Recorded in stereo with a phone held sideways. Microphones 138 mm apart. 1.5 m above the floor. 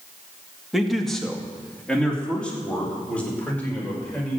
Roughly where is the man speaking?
Centre.